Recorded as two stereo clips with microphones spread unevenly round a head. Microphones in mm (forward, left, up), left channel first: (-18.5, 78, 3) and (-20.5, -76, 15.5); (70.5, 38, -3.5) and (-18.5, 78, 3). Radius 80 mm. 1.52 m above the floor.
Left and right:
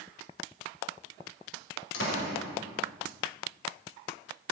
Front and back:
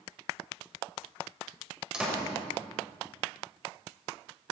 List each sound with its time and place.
1.9 s a door slam: 75° left, 4.5 m